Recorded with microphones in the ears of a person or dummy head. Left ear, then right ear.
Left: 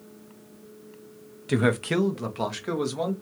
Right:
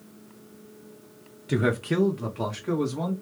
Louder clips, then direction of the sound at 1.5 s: Left 2 dB; 20° left (ahead or behind).